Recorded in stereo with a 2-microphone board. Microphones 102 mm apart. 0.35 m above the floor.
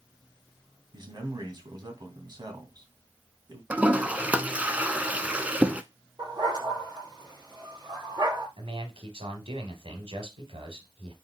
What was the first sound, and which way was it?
A man speaking, 45° right (ahead or behind).